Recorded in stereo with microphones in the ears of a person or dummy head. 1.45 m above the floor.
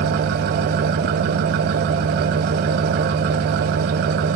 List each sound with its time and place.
0.0 s an engine running: 50° right (ahead or behind), 1.0 m